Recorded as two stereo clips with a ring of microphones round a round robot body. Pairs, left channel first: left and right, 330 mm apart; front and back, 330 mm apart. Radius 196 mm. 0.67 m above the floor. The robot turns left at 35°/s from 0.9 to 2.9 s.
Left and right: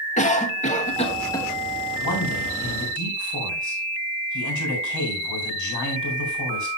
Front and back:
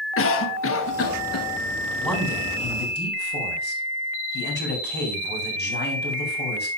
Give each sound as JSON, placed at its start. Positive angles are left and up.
{"t": 0.2, "sound": "a cough", "azimuth_deg": 30, "distance_m": 1.4}
{"t": 2.0, "sound": "a man speaking", "azimuth_deg": 90, "distance_m": 4.0}